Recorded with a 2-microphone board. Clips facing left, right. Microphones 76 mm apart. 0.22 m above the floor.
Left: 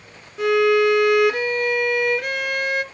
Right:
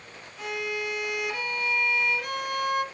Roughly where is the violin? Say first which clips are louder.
Left 16 dB; left.